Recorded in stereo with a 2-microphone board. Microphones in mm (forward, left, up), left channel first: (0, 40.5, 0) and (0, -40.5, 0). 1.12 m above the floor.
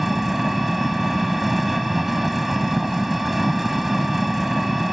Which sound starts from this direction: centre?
An engine running, at 0.0 s.